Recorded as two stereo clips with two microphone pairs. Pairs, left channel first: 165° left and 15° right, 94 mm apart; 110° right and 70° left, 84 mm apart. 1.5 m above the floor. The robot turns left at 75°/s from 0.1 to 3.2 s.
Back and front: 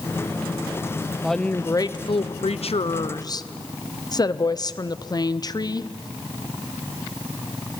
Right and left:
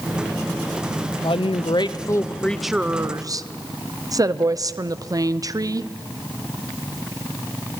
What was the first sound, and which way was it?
A woman speaking, 95° right.